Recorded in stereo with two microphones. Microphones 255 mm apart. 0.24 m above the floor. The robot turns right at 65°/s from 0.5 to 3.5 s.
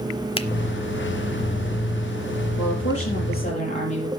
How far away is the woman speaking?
About 5.5 m.